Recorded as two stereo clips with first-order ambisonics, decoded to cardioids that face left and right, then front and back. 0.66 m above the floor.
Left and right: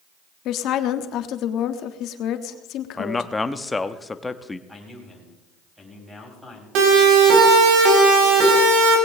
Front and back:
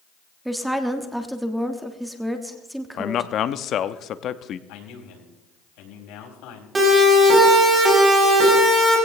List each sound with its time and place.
0.5 s a woman speaking: 95° left, 1.2 m
3.0 s a man speaking: 15° left, 0.7 m
4.7 s a man speaking: 5° right, 5 m
6.8 s a siren: 105° right, 5 m; by 9.0 s 95° right, 6 m